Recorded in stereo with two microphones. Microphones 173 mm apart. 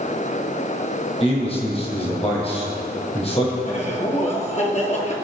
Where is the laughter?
40° left (ahead or behind), 2.5 m.